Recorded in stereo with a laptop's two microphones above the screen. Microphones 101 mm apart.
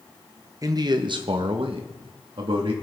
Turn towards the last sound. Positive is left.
turn(degrees=-55)  # may be behind; listen again after turning